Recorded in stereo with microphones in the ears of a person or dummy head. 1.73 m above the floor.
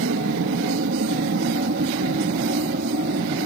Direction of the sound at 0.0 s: 55° right (ahead or behind).